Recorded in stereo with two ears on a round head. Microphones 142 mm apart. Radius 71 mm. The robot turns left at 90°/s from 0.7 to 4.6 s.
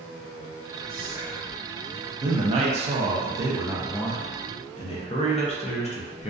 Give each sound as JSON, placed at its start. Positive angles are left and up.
{"t": 0.9, "sound": "whispering", "azimuth_deg": 45, "distance_m": 1.2}
{"t": 2.2, "sound": "a man speaking", "azimuth_deg": -35, "distance_m": 0.5}